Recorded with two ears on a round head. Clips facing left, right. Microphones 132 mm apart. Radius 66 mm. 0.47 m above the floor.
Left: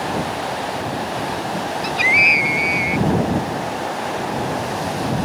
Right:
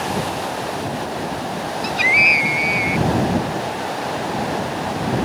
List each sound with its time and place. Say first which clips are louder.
1.8 s a scream: even; centre (ahead or behind)